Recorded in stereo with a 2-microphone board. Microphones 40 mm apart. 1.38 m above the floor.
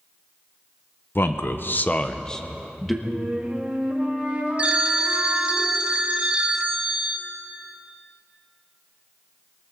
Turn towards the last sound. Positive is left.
turn(degrees=-25)  # may be behind; listen again after turning